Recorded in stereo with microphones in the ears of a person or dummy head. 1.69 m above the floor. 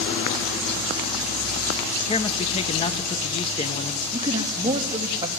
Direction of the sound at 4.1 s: 20° right (ahead or behind).